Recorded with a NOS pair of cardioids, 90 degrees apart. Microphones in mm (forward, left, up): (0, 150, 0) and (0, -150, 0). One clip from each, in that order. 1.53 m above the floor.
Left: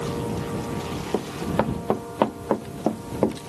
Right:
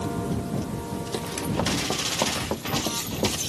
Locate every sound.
1.1 s running footsteps: 60° left